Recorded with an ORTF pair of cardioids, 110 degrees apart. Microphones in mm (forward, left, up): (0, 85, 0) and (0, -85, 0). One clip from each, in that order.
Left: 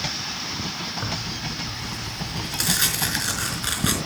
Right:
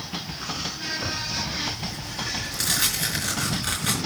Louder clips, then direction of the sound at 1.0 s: Right 1 dB; 20° left.